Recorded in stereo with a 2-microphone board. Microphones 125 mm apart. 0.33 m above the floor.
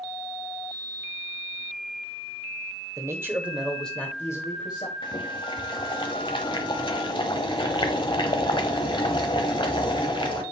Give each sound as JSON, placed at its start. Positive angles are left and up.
{"t": 3.0, "sound": "a man speaking", "side_deg": -30, "distance_m": 1.2}
{"t": 5.0, "sound": "boiling", "side_deg": 40, "distance_m": 1.1}